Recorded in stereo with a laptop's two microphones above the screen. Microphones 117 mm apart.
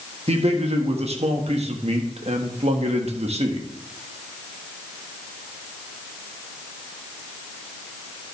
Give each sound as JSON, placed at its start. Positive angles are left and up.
{"t": 0.3, "sound": "a man speaking", "side_deg": -65, "distance_m": 1.4}